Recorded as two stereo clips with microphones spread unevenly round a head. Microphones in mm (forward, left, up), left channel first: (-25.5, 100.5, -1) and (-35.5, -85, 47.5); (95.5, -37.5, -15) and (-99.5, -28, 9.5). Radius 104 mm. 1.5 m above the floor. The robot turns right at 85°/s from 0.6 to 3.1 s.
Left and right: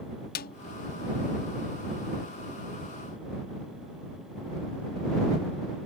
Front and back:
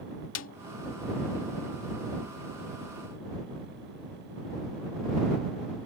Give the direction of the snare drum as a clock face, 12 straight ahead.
11 o'clock.